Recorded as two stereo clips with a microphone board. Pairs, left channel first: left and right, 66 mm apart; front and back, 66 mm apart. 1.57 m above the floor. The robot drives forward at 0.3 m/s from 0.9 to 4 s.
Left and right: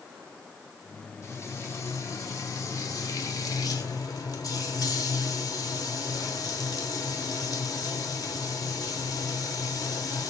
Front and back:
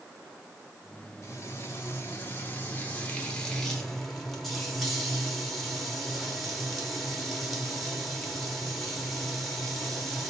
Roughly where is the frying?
Ahead left.